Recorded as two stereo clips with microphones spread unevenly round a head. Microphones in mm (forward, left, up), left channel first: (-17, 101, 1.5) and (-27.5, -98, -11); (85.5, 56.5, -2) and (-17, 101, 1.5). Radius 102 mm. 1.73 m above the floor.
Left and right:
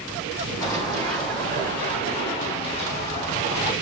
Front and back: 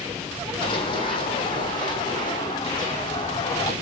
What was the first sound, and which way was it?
Running footsteps, 15° left.